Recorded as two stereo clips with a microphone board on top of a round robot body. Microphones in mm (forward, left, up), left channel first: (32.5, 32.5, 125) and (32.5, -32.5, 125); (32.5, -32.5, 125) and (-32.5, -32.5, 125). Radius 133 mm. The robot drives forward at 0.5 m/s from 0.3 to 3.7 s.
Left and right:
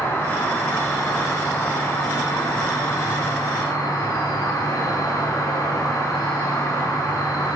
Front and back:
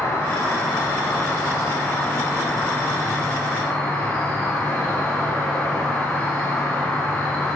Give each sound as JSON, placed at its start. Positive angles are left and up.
{"t": 0.0, "sound": "an insect", "azimuth_deg": 40, "distance_m": 3.0}